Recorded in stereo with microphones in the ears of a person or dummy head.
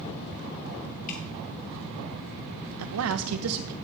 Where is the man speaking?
80° right, 0.9 m.